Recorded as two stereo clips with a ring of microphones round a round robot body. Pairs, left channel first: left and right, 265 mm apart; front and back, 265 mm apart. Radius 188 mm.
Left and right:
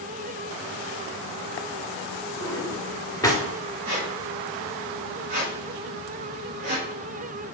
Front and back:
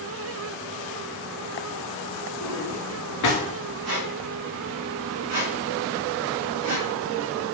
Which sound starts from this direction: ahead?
A drawer, at 2.4 s.